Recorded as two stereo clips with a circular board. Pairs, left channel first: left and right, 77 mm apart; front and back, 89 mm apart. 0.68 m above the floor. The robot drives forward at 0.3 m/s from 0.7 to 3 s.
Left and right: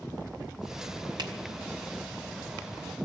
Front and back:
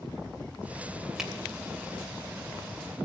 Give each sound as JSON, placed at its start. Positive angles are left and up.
{"t": 1.2, "sound": "a finger snap", "azimuth_deg": -95, "distance_m": 3.0}